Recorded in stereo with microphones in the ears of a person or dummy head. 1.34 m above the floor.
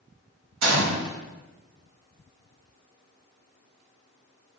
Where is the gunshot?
70° right (ahead or behind), 0.9 m.